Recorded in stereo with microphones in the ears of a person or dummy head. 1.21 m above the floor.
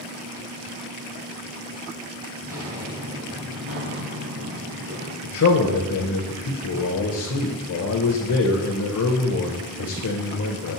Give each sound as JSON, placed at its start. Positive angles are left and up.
{"t": 2.4, "sound": "footsteps", "side_deg": -10, "distance_m": 1.2}
{"t": 5.2, "sound": "a man speaking", "side_deg": 70, "distance_m": 0.7}